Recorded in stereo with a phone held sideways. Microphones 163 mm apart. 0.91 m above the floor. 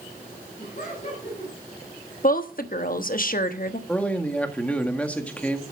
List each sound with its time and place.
0.6 s laughter: 45° left (ahead or behind), 6.5 m
2.2 s a woman speaking: 60° left (ahead or behind), 1.1 m
3.9 s a man speaking: 10° left (ahead or behind), 1.8 m